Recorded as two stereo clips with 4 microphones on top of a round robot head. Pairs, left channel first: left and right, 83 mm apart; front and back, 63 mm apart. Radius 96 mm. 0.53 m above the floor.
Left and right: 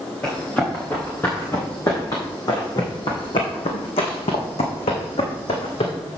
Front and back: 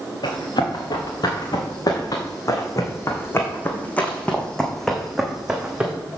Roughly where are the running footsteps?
Ahead.